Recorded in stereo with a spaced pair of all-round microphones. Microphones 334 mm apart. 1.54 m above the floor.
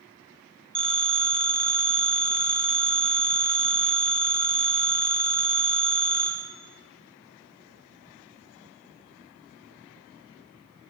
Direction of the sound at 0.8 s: 35° right (ahead or behind).